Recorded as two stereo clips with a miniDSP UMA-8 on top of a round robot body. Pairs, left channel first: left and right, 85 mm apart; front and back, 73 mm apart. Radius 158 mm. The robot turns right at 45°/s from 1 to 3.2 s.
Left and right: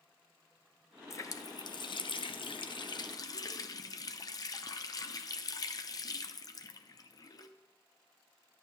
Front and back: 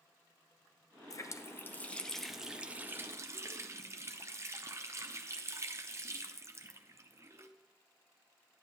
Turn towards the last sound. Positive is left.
turn(degrees=130)